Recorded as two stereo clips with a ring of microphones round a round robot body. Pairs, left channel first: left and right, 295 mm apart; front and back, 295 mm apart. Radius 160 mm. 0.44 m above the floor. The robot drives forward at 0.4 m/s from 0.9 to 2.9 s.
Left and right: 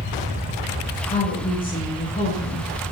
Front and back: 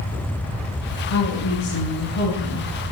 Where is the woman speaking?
25° left, 9.5 m; by 2.7 s 30° left, 9 m.